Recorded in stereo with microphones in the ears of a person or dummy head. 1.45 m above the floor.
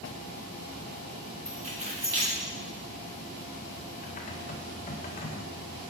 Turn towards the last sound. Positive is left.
turn(degrees=30)  # may be behind; listen again after turning